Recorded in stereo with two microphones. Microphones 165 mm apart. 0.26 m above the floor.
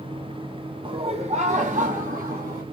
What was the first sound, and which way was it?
Laughter, 35° right (ahead or behind).